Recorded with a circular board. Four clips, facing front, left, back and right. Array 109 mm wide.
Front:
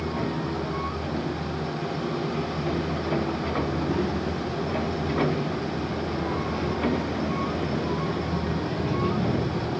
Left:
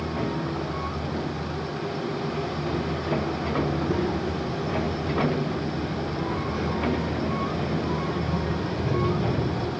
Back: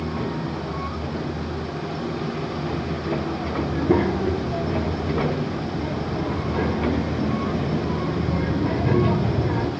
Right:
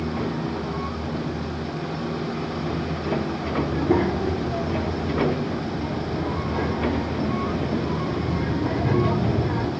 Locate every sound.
3.6 s a child speaking: 155° right, 2 m